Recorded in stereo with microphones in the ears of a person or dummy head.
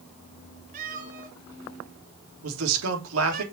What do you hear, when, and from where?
0.7 s a cat meowing: 50° right (ahead or behind), 3.5 m
2.4 s a man speaking: 80° right, 3 m